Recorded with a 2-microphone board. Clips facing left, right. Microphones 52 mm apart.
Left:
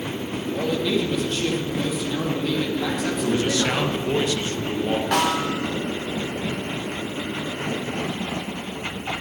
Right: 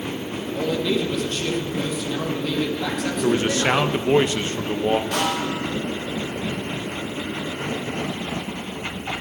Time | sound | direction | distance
0.5 | a man speaking | 5° left (ahead or behind) | 3.5 m
3.2 | a man speaking | 30° right (ahead or behind) | 1.4 m
5.1 | a snare drum | 70° left (ahead or behind) | 3 m